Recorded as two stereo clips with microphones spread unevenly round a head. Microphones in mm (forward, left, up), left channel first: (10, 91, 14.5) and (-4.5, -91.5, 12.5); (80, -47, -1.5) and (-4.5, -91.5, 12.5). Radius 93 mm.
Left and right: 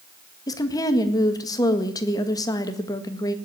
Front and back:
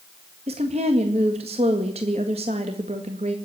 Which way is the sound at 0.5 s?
155° left.